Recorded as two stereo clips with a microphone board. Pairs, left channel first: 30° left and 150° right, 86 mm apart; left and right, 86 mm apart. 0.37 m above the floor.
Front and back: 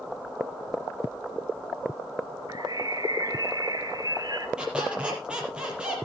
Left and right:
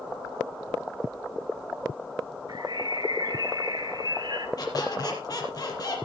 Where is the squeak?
130° left, 5.5 m.